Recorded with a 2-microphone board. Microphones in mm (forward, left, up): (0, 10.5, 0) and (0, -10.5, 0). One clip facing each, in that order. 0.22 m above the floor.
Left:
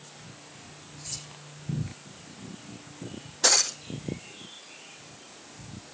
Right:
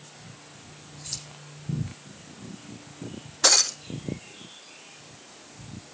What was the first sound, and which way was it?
Keys jangling, 35° right (ahead or behind).